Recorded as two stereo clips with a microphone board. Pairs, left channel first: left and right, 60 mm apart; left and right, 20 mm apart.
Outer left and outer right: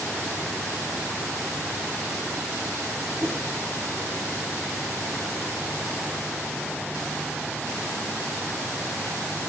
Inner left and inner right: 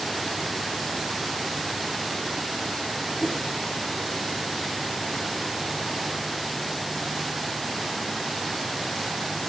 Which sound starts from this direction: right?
A whoosh, at 3.2 s.